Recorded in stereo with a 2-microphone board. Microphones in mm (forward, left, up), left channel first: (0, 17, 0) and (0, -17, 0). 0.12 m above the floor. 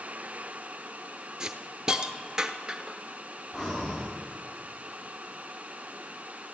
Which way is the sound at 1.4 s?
25° right (ahead or behind).